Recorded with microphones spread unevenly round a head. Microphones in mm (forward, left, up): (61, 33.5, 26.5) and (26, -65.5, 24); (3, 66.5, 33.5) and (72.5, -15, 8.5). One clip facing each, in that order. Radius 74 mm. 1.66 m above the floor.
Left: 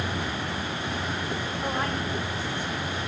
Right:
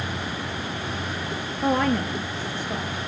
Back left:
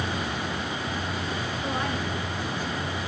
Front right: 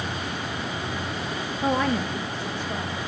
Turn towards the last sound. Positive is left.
turn(degrees=-90)